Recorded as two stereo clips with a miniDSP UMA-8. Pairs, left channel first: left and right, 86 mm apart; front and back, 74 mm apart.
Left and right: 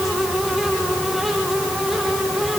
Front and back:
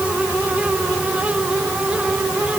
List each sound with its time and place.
Only background noise.